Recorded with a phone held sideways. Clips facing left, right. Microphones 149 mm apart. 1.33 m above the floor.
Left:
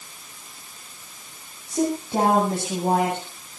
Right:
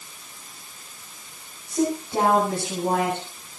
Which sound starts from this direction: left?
A woman speaking, at 1.7 s.